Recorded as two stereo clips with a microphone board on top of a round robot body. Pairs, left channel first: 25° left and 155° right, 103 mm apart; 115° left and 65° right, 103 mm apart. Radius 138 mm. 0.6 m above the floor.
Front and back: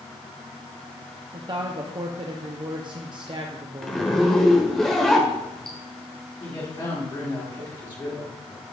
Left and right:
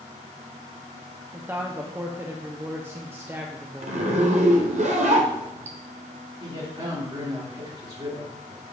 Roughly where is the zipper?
Ahead right.